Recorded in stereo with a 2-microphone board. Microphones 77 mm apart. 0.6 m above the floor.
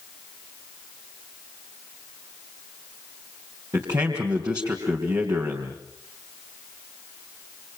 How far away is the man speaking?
About 3.5 m.